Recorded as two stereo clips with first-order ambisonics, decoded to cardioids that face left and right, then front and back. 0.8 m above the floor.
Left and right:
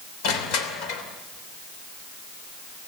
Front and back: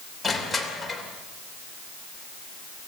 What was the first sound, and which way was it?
Crushing, 85° left.